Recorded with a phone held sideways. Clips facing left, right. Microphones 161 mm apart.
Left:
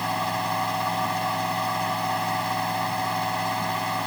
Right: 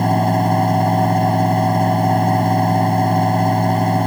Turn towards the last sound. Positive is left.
turn(degrees=-50)  # may be behind; listen again after turning